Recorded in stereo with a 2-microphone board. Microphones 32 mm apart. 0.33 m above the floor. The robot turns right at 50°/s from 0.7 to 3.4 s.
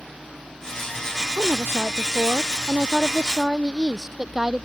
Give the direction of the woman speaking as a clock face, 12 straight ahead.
4 o'clock.